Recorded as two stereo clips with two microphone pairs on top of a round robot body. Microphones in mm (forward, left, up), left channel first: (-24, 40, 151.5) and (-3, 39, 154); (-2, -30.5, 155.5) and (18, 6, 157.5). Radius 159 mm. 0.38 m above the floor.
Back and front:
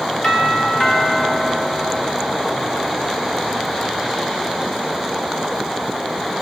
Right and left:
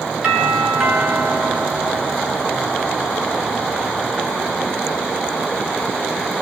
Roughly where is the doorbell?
Behind left.